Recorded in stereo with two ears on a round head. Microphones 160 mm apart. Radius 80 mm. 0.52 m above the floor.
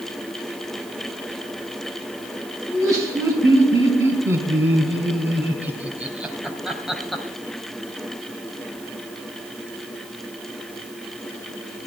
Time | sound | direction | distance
2.7 | laughter | 20° right (ahead or behind) | 5 m